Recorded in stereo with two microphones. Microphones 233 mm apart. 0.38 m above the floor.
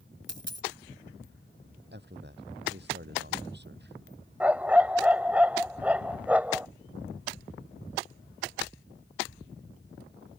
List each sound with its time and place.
0.3 s a dropped coin: 55° right (ahead or behind)
1.9 s a man speaking: 50° right (ahead or behind)
4.4 s a dog barking: 5° right (ahead or behind)